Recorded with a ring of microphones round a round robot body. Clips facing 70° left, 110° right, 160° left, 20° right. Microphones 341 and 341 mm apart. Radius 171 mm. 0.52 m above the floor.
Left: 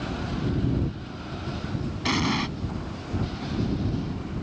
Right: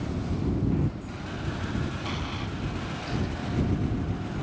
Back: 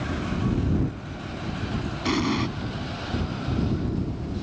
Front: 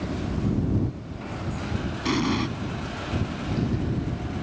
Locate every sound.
2.0 s an explosion: 65° left